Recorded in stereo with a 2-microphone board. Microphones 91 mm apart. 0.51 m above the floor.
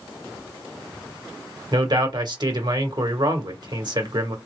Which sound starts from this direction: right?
A man speaking, at 1.7 s.